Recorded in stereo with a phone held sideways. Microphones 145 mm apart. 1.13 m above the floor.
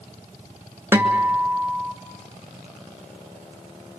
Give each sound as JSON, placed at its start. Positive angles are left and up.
{"t": 0.9, "sound": "a guitar", "side_deg": -15, "distance_m": 1.8}